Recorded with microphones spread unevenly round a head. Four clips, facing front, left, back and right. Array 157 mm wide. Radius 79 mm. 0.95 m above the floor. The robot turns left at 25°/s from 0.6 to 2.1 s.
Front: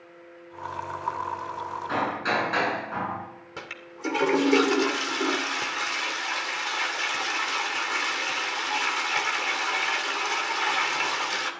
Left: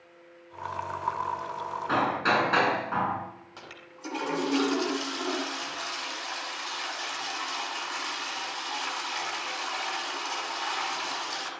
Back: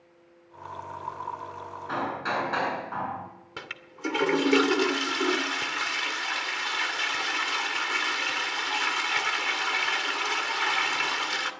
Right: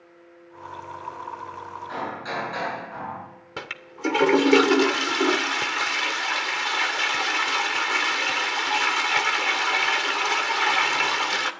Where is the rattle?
No rattle in this recording.